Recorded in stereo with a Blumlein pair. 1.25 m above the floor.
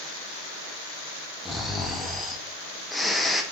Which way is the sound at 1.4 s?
Straight ahead.